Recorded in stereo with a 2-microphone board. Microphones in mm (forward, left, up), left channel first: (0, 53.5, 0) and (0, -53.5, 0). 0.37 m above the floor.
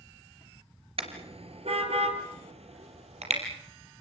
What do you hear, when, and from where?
1.0 s a car horn: 60° right (ahead or behind), 3 m; by 3.4 s 80° right, 4.5 m